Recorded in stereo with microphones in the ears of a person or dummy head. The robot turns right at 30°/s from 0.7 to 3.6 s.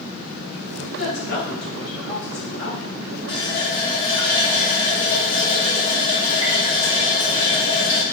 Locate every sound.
0.9 s a woman speaking: centre (ahead or behind), 1.9 m; by 3.0 s 60° left (ahead or behind), 1.9 m
3.3 s a running tap: 25° left (ahead or behind), 1.6 m; by 8.0 s 35° left (ahead or behind), 1.6 m